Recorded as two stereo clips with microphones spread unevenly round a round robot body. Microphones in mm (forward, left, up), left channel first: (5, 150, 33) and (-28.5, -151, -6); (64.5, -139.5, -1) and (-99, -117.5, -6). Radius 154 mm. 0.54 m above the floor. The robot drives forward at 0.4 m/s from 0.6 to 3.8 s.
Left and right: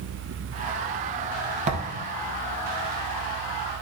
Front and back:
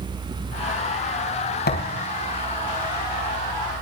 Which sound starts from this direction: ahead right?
A thud, at 1.7 s.